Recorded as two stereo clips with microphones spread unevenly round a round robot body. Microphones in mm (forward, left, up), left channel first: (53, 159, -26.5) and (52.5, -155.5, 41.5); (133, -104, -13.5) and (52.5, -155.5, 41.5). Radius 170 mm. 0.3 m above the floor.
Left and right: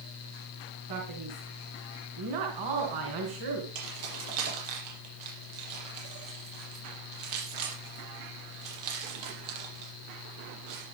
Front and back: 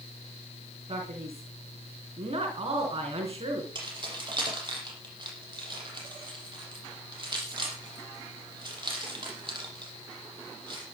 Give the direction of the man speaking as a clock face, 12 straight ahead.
4 o'clock.